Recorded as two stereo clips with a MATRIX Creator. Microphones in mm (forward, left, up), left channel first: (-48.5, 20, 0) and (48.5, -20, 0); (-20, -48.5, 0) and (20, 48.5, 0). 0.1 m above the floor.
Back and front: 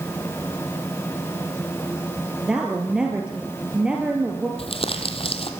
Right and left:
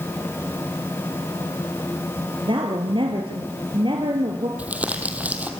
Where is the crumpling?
145° left, 2 m.